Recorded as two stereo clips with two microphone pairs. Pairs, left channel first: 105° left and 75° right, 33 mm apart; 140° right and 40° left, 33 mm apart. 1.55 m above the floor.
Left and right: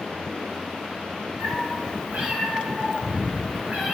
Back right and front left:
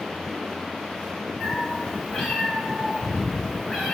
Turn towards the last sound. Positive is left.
turn(degrees=-60)